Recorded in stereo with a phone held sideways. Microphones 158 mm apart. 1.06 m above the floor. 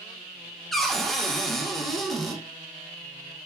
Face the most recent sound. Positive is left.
turn(degrees=0)  # may be behind; listen again after turning